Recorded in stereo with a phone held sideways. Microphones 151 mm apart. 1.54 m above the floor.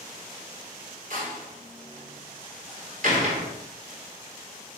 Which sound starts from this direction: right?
A door slam, at 1.1 s.